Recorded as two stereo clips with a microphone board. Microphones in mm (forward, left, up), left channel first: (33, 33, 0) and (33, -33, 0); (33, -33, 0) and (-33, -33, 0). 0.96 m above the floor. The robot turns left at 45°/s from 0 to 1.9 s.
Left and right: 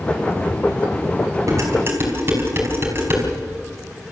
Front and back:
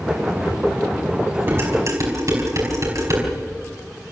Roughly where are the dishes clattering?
Behind right.